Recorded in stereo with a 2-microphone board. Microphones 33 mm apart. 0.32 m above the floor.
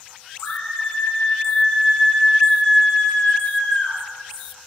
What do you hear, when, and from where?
0.4 s a scream: 45° left (ahead or behind), 5 m; by 4.0 s 30° left (ahead or behind), 3.5 m